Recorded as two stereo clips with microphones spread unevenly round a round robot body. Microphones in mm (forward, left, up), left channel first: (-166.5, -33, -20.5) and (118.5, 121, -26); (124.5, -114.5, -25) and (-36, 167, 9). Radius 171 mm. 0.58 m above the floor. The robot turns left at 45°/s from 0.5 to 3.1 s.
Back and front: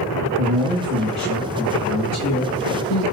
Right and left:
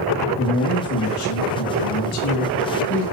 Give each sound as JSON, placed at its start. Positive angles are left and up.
{"t": 0.4, "sound": "a man speaking", "azimuth_deg": 0, "distance_m": 5.0}